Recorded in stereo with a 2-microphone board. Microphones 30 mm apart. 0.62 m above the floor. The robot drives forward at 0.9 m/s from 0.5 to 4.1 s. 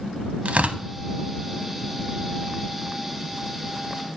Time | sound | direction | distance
0.5 | tearing paper | 60° right (ahead or behind) | 0.7 m